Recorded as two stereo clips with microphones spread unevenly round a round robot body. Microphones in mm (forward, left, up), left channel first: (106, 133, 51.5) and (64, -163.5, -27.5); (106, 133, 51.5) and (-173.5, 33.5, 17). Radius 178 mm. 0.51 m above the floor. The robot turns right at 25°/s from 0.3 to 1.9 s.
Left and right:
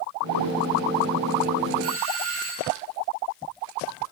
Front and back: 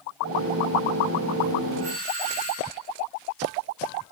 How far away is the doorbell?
About 8 m.